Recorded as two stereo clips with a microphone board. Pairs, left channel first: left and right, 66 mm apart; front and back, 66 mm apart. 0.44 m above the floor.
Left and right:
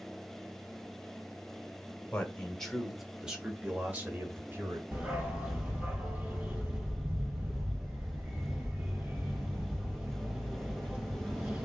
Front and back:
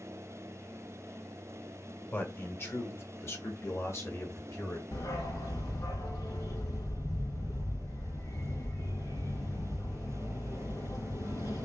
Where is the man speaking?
35° left, 1.3 m; by 4.8 s 40° right, 2 m.